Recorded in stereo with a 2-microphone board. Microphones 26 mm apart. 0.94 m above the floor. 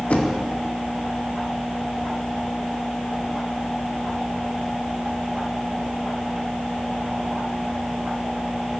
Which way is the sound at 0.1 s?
60° left (ahead or behind).